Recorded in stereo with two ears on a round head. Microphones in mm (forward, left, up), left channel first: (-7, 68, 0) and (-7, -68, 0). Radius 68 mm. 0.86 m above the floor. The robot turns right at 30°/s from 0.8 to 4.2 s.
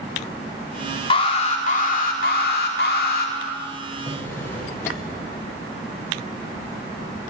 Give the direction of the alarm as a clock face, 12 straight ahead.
11 o'clock.